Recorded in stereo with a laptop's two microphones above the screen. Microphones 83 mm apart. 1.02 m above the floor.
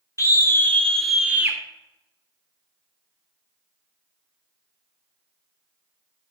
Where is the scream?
40° left (ahead or behind), 1.1 m; by 1.6 s 25° right (ahead or behind), 0.9 m.